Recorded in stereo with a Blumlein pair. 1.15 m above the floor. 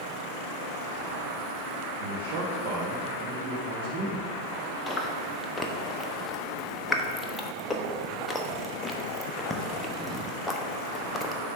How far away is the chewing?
About 0.7 m.